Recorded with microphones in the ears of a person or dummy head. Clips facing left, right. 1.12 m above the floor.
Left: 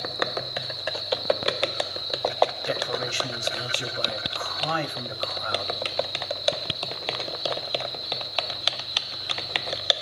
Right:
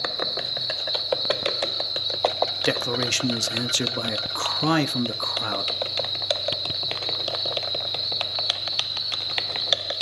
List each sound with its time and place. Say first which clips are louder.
0.0 s an insect: left 1 dB; 55° right (ahead or behind), 8.5 m
2.6 s a man speaking: right 3 dB; 70° right (ahead or behind), 1.8 m